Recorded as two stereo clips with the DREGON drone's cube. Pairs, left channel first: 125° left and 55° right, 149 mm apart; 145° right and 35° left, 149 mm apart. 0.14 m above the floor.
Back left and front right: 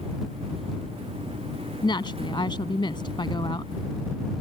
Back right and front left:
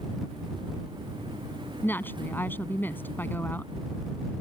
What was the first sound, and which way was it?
A woman speaking, 150° left.